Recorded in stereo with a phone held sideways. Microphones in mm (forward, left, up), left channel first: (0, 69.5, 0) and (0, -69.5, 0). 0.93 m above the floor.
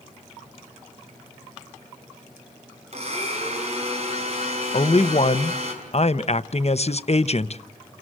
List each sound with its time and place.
2.9 s a blender: 45° right (ahead or behind), 5 m
4.7 s a man speaking: 50° left (ahead or behind), 0.7 m